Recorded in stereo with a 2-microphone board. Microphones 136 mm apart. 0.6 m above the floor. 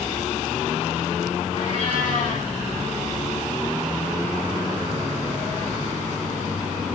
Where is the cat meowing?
70° left (ahead or behind), 8.5 m.